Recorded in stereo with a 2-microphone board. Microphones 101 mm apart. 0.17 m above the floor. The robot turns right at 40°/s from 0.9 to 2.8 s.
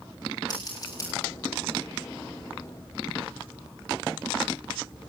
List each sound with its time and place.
0.5 s scissors: 40° left (ahead or behind), 7.5 m; by 1.1 s 35° left (ahead or behind), 7.5 m